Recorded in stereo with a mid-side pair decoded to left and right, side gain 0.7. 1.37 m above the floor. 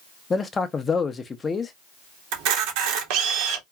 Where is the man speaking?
25° left, 0.7 m.